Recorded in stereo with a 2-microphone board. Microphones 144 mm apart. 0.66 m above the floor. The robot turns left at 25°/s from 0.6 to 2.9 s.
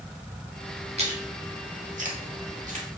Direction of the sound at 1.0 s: 45° right (ahead or behind).